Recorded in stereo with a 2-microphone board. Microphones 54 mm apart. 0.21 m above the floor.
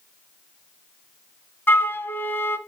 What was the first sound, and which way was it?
A flute, 45° left (ahead or behind).